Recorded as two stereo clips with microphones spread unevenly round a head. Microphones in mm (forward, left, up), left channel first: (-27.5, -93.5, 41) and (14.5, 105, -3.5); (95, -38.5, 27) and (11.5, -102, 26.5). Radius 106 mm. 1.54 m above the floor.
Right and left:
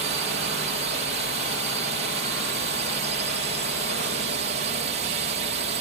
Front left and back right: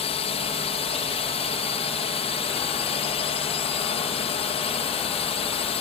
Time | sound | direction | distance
0.0 | a drone | 30° left | ?